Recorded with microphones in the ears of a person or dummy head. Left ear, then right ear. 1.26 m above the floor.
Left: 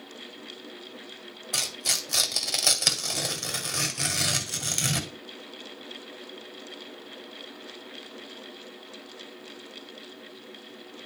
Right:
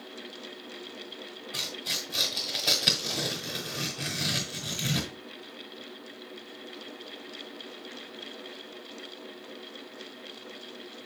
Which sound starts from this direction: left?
Tearing paper, at 1.5 s.